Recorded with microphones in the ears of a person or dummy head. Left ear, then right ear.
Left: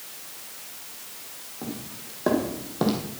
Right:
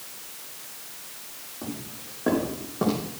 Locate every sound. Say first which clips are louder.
1.6 s footsteps: even; 20° left (ahead or behind), 4.5 m; by 3.1 s 35° left (ahead or behind), 4 m